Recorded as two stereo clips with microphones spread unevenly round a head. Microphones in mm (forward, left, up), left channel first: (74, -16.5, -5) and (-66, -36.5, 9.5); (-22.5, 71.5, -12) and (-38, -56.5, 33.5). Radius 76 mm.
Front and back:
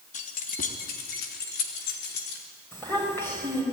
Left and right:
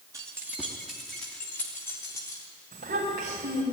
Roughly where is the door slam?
No door slam in this recording.